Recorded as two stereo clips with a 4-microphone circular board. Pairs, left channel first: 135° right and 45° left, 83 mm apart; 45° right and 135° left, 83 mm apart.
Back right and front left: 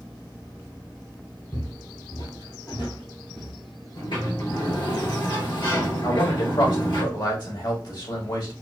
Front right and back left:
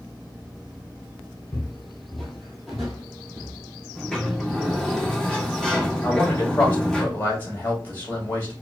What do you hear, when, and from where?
1.5 s footsteps: 105° right, 1.4 m; by 3.5 s 145° right, 2.5 m
4.0 s a sliding door: 130° right, 2 m
6.0 s a man speaking: 110° right, 2.5 m